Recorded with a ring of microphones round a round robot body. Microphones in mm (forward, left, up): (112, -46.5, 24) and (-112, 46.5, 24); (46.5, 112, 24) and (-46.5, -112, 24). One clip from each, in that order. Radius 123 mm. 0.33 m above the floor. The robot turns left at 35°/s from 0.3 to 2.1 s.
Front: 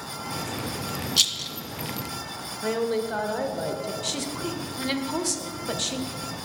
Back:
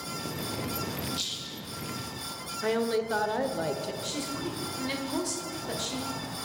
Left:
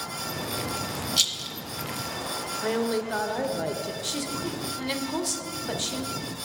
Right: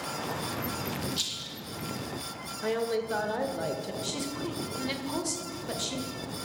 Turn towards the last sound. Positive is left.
turn(degrees=0)